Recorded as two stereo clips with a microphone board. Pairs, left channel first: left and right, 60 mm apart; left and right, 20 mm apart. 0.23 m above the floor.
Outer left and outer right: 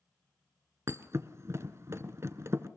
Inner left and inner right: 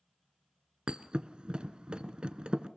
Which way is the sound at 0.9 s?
55° right (ahead or behind).